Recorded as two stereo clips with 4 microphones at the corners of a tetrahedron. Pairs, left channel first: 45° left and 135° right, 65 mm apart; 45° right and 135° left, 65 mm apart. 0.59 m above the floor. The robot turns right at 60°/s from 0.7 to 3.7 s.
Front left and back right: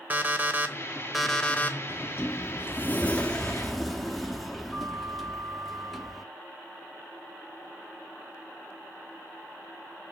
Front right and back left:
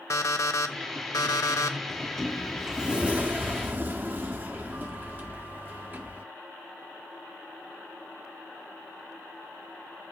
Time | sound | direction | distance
0.1 | an alarm clock | 75° right | 0.8 m
1.9 | a sliding door | 20° left | 0.9 m